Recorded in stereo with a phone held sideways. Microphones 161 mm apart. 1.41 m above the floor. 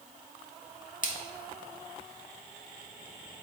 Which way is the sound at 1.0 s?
55° left (ahead or behind).